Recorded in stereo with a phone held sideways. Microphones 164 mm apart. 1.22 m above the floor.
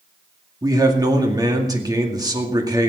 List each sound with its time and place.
0.6 s a man speaking: 25° right (ahead or behind), 2 m